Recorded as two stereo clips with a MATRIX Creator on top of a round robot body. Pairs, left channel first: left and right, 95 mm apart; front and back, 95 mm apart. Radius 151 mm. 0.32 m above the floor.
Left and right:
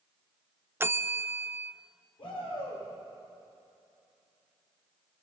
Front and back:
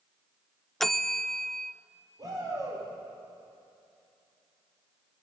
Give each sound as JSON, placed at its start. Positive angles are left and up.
{"t": 0.8, "sound": "a bell", "azimuth_deg": -85, "distance_m": 0.7}
{"t": 2.2, "sound": "a shout", "azimuth_deg": 125, "distance_m": 8.5}